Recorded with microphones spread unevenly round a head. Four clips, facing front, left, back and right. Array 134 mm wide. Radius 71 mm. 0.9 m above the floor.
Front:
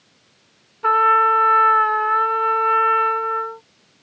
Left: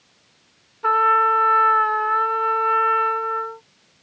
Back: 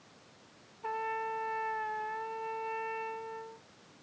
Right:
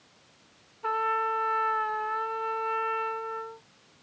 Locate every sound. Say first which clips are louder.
0.8 s a trumpet: left 11 dB, front 20 dB; 30° left